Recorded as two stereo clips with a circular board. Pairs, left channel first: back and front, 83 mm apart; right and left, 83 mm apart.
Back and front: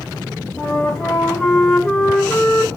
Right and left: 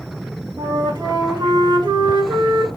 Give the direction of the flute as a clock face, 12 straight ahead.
9 o'clock.